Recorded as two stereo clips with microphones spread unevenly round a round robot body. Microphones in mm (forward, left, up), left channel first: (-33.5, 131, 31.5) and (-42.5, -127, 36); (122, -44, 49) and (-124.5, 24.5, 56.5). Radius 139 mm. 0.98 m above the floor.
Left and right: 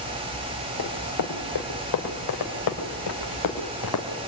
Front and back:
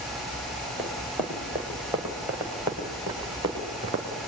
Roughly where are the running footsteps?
Left.